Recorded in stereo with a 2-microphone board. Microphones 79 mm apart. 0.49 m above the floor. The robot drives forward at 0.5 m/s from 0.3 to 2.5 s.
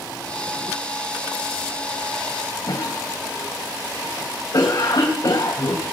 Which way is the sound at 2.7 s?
65° left (ahead or behind).